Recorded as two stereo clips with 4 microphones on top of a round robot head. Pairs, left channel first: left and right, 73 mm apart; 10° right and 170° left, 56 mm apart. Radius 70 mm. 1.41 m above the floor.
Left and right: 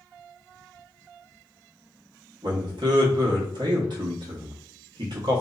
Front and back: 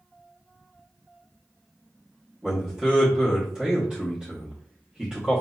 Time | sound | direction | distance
2.4 | a man speaking | 110° right | 0.9 m